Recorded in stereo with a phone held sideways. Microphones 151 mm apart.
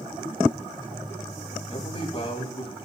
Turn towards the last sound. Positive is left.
turn(degrees=35)  # may be behind; listen again after turning